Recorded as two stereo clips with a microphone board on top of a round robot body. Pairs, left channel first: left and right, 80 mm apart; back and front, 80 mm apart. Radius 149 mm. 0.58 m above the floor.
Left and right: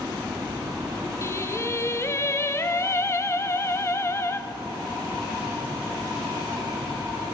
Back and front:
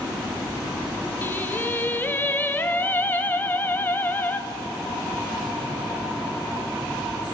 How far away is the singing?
About 0.8 m.